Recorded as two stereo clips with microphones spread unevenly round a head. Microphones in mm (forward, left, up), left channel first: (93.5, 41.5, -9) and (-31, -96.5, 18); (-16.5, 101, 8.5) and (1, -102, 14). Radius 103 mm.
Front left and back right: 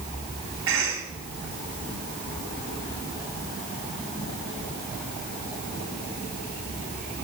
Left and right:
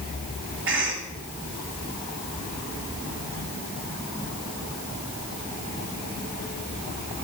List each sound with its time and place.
0.7 s a cough: 120° right, 6 m